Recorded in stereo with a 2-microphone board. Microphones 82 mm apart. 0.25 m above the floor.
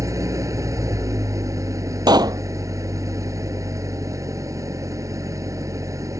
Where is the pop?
60° right (ahead or behind).